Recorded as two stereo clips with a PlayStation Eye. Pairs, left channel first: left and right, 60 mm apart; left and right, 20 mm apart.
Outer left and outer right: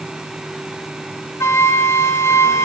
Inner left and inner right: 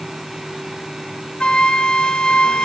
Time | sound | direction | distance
1.4 | a flute | 45° left (ahead or behind) | 0.7 m